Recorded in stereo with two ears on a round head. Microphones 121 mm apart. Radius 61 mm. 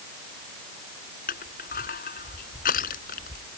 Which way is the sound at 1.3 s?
75° left (ahead or behind).